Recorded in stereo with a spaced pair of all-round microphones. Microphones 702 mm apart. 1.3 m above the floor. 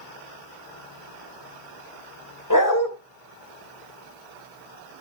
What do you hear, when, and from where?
2.5 s a dog barking: 25° left (ahead or behind), 2.5 m